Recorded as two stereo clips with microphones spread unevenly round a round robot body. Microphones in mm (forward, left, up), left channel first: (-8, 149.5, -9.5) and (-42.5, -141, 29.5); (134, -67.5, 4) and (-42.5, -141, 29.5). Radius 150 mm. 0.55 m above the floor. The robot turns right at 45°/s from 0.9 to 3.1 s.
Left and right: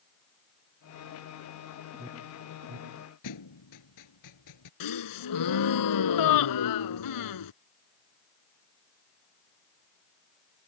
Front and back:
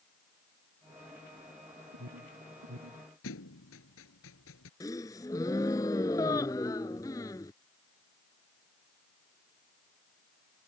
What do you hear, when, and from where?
1.9 s an alarm: straight behind; by 3.0 s 130° right
3.2 s a thud: 55° left
4.8 s a gasp: 105° left